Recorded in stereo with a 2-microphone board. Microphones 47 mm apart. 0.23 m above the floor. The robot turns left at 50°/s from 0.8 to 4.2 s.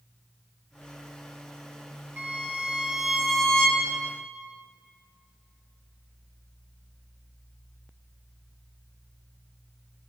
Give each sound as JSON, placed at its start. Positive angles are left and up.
{"t": 2.2, "sound": "a violin", "azimuth_deg": -130, "distance_m": 2.0}